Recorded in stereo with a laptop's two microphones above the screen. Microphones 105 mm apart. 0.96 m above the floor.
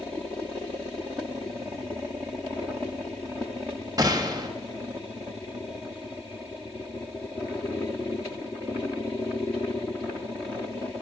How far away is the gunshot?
About 1.4 m.